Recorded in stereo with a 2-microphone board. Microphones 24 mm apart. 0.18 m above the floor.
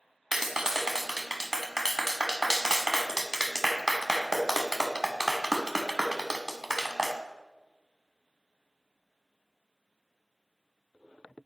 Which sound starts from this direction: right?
A clap, at 0.3 s.